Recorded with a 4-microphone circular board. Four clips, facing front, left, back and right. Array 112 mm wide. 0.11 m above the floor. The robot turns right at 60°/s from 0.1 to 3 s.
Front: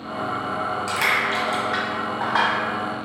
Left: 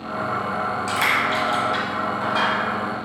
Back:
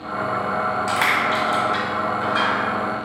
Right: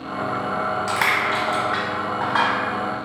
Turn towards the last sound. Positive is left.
turn(degrees=0)